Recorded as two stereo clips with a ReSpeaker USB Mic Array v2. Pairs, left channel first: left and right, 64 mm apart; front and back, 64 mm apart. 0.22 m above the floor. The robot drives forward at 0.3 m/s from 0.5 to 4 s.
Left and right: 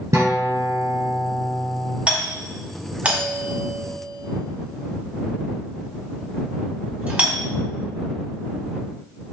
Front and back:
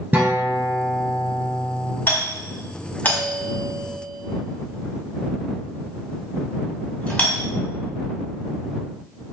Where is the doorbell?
30° right, 1.9 m; by 7.5 s 55° right, 1.7 m.